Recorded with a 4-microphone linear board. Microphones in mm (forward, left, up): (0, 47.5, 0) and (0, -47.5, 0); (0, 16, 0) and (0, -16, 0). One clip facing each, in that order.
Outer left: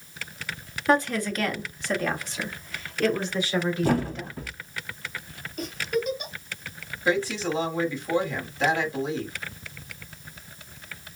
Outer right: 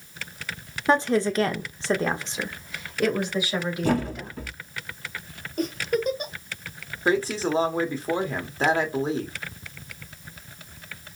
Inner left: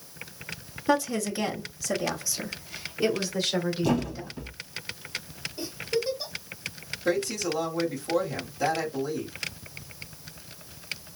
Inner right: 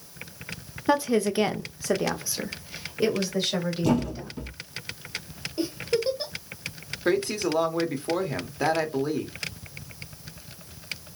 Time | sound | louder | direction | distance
0.9 | a woman speaking | outer right 2 dB, inner right 3 dB | 25° right (ahead or behind) | 1.2 m
3.8 | a thud | even, inner right 2 dB | centre (ahead or behind) | 2.5 m
5.6 | a giggle | outer right 3 dB, inner right 3 dB | 40° right (ahead or behind) | 1.7 m
7.0 | a woman speaking | outer right 2 dB, inner right 2 dB | 35° right (ahead or behind) | 1.4 m